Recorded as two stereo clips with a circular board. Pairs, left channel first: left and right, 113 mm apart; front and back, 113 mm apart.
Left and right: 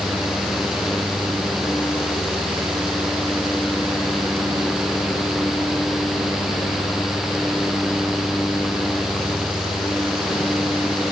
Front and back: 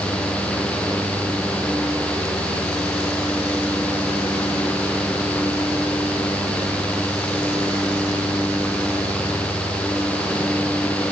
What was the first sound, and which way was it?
Only background noise.